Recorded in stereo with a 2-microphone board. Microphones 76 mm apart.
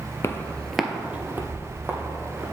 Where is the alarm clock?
I don't hear an alarm clock.